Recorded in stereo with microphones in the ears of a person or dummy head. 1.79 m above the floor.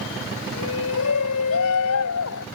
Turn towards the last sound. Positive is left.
turn(degrees=80)